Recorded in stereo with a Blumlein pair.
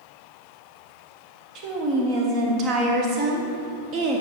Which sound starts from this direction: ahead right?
A woman speaking, at 1.6 s.